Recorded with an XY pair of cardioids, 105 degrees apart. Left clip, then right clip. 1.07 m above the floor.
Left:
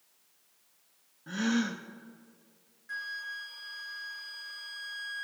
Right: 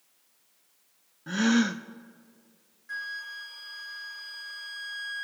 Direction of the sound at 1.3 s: 35° right.